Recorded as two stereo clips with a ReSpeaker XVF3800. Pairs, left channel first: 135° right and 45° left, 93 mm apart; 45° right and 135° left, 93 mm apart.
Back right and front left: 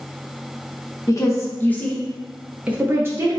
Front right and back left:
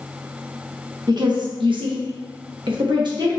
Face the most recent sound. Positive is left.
turn(degrees=100)